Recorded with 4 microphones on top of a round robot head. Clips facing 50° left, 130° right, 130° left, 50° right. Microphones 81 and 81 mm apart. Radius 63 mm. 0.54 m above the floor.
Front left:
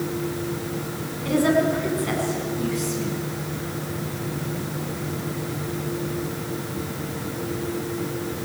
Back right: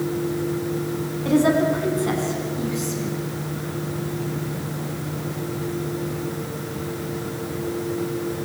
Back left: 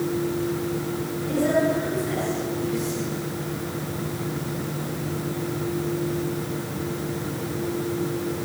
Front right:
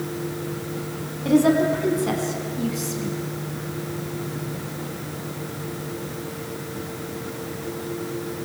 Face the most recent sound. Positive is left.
turn(degrees=-60)